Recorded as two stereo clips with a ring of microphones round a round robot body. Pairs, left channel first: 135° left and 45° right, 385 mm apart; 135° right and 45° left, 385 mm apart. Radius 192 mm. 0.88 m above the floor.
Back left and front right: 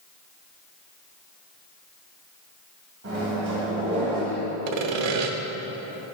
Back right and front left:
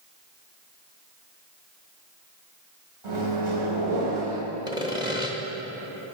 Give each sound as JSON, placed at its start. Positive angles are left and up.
{"t": 3.0, "sound": "a microwave", "azimuth_deg": 15, "distance_m": 3.5}
{"t": 4.7, "sound": "sawing", "azimuth_deg": -35, "distance_m": 1.1}